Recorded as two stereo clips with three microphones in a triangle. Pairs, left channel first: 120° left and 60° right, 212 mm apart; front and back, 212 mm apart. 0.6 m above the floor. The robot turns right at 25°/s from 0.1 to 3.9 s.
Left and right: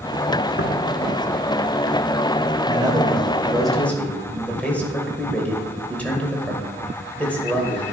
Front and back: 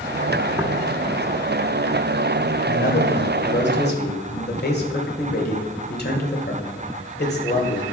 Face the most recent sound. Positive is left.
turn(degrees=35)